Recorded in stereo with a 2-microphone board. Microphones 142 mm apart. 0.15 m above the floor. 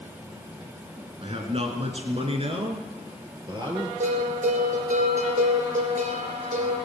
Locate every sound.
1.2 s a man speaking: 40° right (ahead or behind), 2 m; by 3.9 s 30° right (ahead or behind), 4.5 m
4.0 s a bell: 60° right (ahead or behind), 3 m